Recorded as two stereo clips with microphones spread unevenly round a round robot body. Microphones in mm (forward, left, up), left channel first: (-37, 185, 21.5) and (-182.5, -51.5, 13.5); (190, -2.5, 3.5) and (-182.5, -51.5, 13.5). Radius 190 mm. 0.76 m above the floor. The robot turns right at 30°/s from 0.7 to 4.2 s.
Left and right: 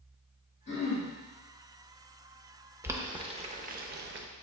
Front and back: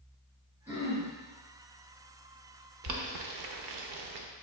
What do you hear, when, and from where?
0.7 s throat clearing: 100° left, 1.8 m; by 1.1 s 115° left, 1.8 m
2.8 s boiling: 155° left, 0.5 m; by 4.2 s 165° right, 0.5 m